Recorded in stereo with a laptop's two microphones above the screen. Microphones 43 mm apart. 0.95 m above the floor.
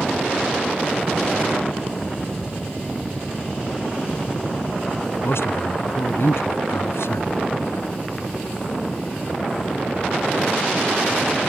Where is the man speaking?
80° left.